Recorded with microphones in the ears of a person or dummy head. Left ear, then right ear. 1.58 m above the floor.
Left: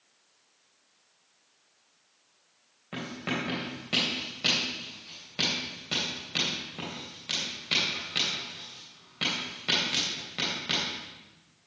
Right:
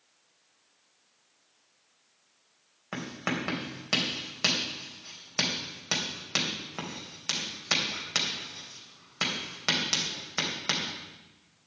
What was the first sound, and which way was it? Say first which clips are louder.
Writing: even; 45° right (ahead or behind).